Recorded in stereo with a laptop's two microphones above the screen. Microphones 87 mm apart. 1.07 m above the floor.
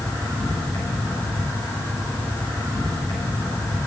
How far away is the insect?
About 7 m.